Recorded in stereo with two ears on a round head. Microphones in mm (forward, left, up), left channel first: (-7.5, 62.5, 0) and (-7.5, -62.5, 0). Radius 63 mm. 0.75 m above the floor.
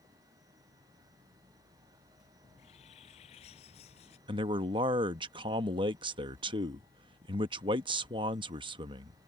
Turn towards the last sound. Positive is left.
turn(degrees=-35)  # may be behind; listen again after turning